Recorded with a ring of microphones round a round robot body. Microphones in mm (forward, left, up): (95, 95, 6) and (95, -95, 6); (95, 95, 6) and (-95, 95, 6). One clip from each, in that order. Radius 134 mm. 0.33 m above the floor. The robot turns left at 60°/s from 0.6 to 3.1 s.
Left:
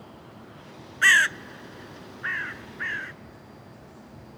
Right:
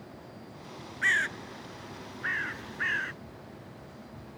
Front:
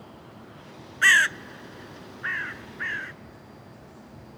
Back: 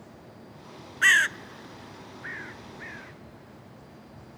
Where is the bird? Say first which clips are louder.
Left 9 dB, front 2 dB; 90° left; by 3.1 s 35° right.